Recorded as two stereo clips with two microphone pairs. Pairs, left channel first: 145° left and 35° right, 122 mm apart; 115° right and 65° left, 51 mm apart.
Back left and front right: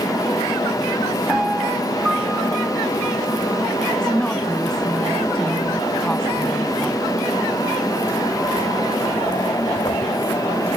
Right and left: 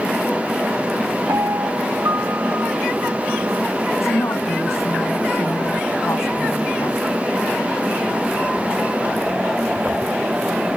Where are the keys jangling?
No keys jangling in this recording.